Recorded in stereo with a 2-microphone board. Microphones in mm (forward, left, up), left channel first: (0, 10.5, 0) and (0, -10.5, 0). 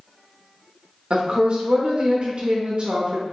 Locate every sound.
1.1 s a woman speaking: 45° right (ahead or behind), 0.6 m